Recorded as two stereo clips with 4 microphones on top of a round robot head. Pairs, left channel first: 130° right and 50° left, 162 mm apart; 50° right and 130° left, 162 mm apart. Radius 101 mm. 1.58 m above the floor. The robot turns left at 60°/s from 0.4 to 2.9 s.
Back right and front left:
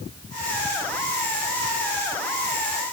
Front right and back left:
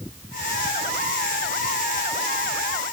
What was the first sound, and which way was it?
Only background noise.